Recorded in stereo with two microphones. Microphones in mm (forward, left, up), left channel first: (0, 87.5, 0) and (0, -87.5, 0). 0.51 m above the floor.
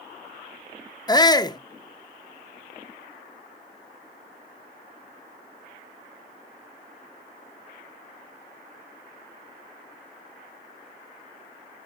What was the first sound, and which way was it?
A shout, 25° left (ahead or behind).